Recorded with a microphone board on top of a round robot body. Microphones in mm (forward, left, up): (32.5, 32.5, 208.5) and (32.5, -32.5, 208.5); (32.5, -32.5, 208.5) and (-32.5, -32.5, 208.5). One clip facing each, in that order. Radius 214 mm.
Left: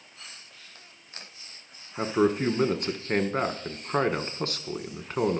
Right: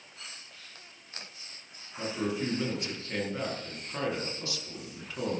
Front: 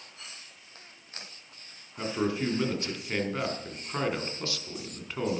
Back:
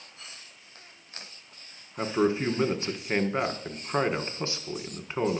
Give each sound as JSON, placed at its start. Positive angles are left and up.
{"t": 2.0, "sound": "a man speaking", "azimuth_deg": 120, "distance_m": 1.6}